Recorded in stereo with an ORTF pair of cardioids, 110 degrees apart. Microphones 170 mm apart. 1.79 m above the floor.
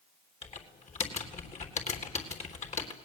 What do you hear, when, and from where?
0.4 s typing on a keyboard: 40° left, 3.5 m